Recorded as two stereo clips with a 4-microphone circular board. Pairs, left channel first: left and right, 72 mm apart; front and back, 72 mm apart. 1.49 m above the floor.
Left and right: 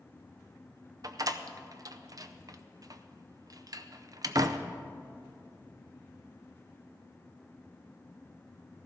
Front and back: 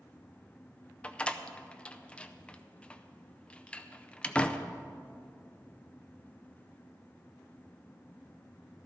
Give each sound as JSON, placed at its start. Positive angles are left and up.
{"t": 1.0, "sound": "a door slam", "azimuth_deg": -75, "distance_m": 0.5}